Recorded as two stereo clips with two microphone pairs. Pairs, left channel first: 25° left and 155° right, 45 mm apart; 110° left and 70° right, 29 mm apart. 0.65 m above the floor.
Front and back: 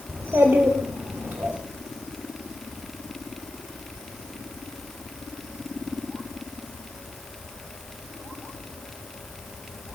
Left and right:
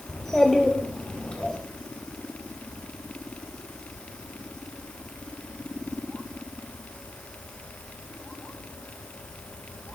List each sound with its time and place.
0.1 s a child speaking: 170° right, 1.7 m; by 1.6 s 155° left, 1.1 m